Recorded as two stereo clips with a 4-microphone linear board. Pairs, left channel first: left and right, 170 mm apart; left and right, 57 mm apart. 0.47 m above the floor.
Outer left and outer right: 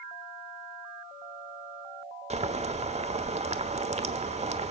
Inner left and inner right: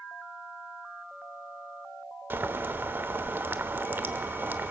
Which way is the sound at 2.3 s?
40° right (ahead or behind).